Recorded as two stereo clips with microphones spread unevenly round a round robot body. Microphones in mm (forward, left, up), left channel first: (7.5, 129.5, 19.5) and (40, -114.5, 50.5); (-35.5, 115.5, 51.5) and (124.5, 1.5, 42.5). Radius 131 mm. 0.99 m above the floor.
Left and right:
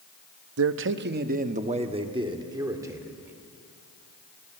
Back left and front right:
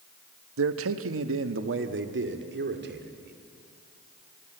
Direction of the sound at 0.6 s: 50° right.